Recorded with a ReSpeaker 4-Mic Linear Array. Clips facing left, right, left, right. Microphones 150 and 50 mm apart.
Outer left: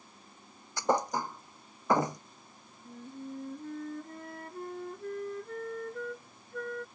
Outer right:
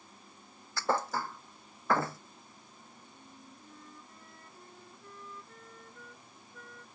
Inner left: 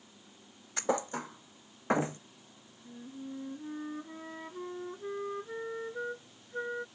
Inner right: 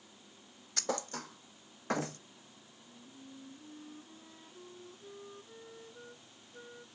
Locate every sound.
0.8 s a thud: 15° left (ahead or behind)
2.9 s a flute: 65° left (ahead or behind)